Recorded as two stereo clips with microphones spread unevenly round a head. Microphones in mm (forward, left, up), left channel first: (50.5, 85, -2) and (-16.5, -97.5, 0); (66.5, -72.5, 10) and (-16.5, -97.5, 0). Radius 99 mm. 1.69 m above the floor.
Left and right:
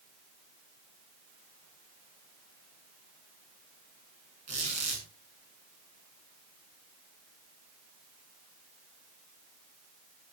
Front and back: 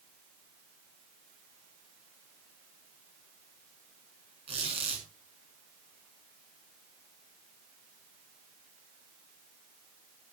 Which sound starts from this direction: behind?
A squeak, at 4.5 s.